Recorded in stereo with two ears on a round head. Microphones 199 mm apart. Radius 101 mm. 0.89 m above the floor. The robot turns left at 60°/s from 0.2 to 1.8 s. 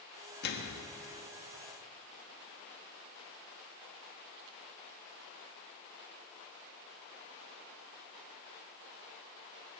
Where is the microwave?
50° left (ahead or behind), 1.1 m; by 0.8 s 70° left (ahead or behind), 1.1 m.